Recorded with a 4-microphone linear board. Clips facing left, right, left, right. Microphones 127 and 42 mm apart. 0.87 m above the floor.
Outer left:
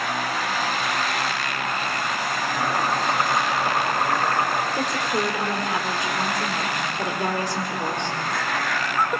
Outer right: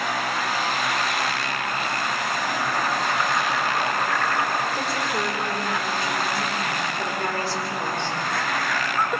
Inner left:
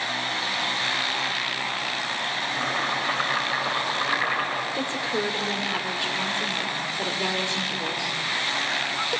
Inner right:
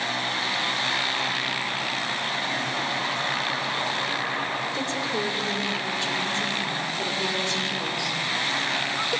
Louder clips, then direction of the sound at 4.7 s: Outer left 2 dB, even; 15° left (ahead or behind).